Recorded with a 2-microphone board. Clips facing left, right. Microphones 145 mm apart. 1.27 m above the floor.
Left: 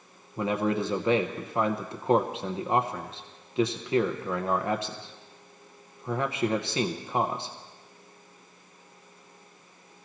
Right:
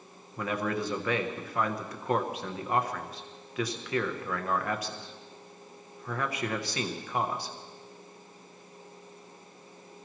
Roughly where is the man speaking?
Left.